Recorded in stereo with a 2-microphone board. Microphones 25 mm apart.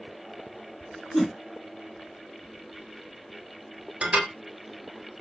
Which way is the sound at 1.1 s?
5° right (ahead or behind).